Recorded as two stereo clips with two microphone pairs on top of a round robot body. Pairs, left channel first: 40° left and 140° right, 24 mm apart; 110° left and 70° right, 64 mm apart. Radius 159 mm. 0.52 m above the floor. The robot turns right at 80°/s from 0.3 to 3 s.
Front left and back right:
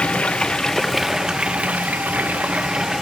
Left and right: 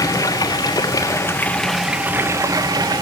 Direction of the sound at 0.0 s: 80° left.